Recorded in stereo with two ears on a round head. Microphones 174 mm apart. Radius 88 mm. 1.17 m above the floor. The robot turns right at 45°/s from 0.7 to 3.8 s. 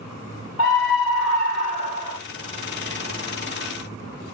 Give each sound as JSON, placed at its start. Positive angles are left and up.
{"t": 0.6, "sound": "a scream", "azimuth_deg": 85, "distance_m": 1.0}